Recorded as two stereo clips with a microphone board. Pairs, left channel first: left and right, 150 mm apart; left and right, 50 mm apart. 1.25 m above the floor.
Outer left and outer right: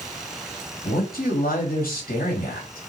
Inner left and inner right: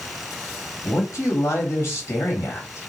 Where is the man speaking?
75° left (ahead or behind), 1.4 m.